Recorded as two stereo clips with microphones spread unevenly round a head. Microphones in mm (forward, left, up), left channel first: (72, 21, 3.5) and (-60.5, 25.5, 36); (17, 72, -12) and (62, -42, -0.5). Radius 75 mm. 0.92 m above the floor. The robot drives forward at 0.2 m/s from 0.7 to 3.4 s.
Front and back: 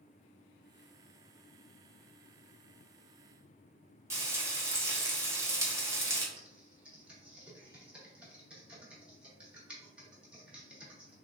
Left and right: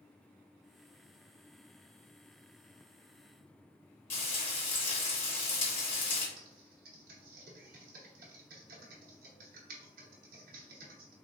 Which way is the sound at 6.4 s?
95° right.